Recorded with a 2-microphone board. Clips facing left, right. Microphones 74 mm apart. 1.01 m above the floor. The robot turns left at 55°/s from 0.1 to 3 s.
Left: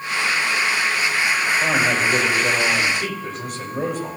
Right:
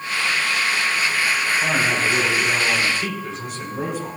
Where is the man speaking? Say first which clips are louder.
Left 1 dB; 145° left, 5 m; by 4.2 s 65° left, 5 m.